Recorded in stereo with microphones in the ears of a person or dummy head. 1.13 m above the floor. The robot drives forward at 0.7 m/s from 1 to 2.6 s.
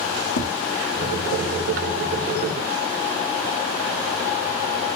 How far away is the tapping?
About 1.3 m.